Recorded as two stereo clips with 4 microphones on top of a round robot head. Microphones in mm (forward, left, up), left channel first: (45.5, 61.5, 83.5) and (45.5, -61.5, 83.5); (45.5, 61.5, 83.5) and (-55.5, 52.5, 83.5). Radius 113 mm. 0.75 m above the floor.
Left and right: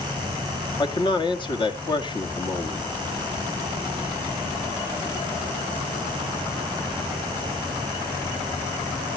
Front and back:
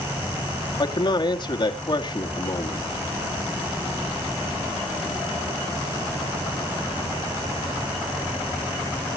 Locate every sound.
0.8 s a man speaking: 45° left, 1.8 m